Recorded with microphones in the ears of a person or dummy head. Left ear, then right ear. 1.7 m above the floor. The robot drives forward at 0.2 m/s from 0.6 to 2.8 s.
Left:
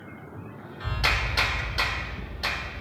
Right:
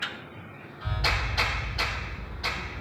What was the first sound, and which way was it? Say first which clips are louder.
A clap: left 2 dB; 45° left (ahead or behind).